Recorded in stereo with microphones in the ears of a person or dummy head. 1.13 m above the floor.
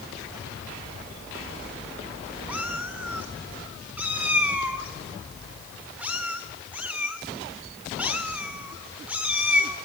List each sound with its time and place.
2.5 s a cat meowing: 5° right (ahead or behind), 1.7 m